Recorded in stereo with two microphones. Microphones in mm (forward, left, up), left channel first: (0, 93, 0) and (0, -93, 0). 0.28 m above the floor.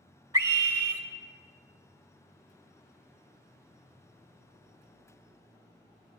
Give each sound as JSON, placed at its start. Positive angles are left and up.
{"t": 0.3, "sound": "a scream", "side_deg": -20, "distance_m": 1.2}